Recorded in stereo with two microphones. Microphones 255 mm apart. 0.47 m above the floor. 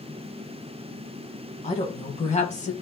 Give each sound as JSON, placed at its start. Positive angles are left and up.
{"t": 1.6, "sound": "a woman speaking", "side_deg": 25, "distance_m": 3.5}